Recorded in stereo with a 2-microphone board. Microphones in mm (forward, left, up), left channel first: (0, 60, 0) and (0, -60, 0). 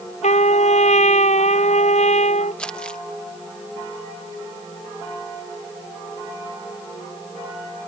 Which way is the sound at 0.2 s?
70° left (ahead or behind).